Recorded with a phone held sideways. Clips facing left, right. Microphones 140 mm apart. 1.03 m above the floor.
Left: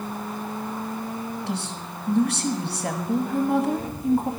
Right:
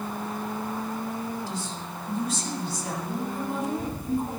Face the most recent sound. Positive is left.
turn(degrees=80)